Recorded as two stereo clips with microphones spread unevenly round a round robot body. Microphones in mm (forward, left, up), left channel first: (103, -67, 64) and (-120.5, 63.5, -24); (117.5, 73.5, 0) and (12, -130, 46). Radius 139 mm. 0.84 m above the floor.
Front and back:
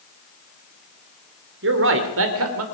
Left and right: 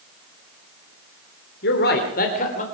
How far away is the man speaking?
About 2.5 m.